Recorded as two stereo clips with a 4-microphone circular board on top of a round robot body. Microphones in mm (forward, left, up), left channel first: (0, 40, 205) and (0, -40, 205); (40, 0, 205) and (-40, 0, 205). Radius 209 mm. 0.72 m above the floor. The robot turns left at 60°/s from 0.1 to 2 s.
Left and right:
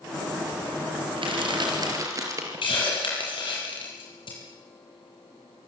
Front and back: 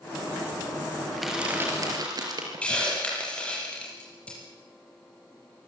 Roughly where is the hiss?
Left.